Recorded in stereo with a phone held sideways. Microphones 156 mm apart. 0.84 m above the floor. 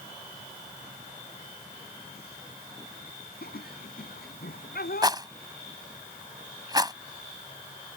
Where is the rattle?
25° right (ahead or behind).